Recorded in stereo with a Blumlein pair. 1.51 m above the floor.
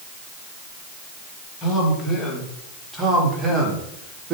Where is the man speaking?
15° left, 2.5 m; by 4.3 s 20° right, 2.5 m.